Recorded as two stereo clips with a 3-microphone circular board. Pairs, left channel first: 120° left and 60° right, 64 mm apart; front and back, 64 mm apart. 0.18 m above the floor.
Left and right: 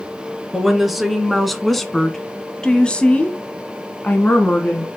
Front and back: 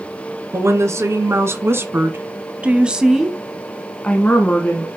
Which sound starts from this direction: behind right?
A woman speaking, at 0.5 s.